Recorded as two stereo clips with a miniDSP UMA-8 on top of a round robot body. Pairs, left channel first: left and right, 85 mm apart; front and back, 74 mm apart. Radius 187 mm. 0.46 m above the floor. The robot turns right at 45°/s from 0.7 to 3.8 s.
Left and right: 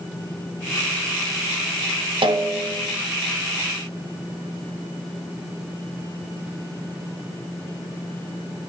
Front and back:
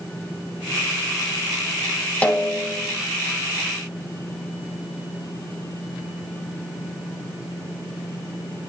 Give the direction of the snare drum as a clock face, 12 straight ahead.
2 o'clock.